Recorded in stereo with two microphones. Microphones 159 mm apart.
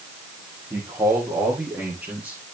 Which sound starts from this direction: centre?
A man speaking, at 0.7 s.